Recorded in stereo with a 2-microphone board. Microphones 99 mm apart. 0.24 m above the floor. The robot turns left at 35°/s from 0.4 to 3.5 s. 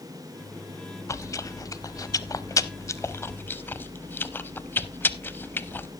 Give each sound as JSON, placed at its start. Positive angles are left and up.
{"t": 1.1, "sound": "chewing", "side_deg": 30, "distance_m": 0.5}